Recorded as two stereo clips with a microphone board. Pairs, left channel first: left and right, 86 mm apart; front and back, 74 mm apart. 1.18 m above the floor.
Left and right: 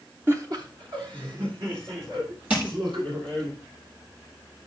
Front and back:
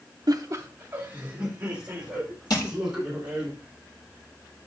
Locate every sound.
0.3 s laughter: 155° right, 0.5 m; by 3.5 s 100° right, 5 m
2.5 s crushing: 15° right, 4.5 m